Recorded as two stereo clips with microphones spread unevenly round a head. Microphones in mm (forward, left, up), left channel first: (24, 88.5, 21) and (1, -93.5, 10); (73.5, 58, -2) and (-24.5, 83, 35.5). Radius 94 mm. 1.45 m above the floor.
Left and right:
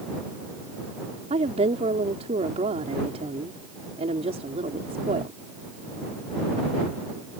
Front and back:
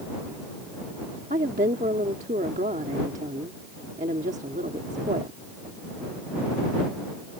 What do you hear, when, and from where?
1.3 s a woman speaking: 160° right